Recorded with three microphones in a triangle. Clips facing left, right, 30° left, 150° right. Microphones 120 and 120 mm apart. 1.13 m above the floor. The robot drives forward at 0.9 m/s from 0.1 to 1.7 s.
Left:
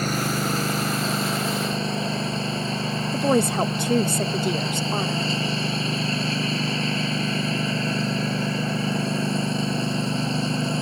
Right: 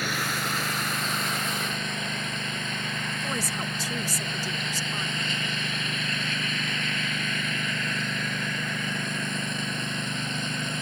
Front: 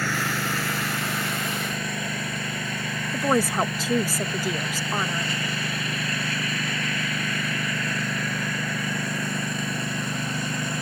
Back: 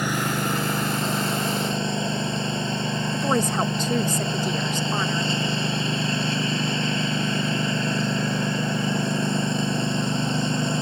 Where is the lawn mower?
140° left; by 10.8 s 145° left.